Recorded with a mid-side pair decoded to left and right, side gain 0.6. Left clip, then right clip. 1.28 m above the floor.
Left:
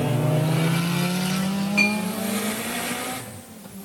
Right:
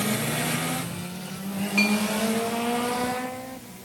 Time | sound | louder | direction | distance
1.8 | a clink | left 2 dB | straight ahead | 9 m